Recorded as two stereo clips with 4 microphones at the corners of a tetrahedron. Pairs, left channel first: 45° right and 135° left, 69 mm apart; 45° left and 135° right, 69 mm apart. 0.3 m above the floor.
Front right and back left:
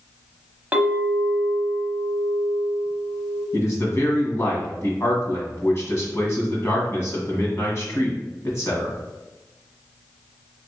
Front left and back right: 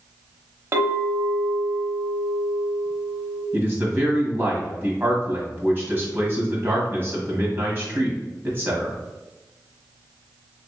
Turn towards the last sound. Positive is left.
turn(degrees=-80)